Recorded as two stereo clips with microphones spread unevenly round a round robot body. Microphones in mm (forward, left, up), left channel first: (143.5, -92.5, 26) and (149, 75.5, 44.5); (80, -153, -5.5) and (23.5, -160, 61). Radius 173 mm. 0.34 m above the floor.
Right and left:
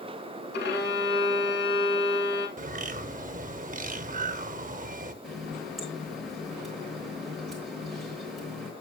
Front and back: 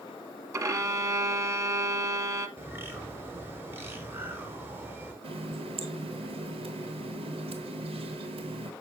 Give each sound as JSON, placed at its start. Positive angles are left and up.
{"t": 0.5, "sound": "a violin", "azimuth_deg": -130, "distance_m": 1.0}
{"t": 2.6, "sound": "a bird", "azimuth_deg": 70, "distance_m": 0.8}
{"t": 5.2, "sound": "a running tap", "azimuth_deg": -175, "distance_m": 1.0}